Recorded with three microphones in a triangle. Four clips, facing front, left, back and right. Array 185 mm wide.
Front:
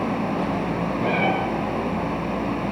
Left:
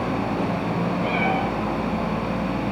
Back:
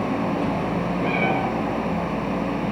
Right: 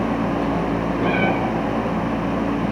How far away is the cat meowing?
About 8 m.